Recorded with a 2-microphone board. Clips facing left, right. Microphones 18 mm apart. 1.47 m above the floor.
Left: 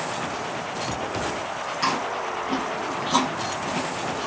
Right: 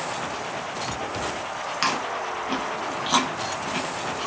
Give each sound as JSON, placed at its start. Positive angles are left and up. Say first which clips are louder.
{"t": 1.8, "sound": "chewing", "louder": "even", "side_deg": -40, "distance_m": 1.3}